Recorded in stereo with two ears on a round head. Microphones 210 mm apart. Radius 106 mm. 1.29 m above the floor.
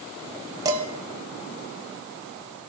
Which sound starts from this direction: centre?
Dishes clattering, at 0.7 s.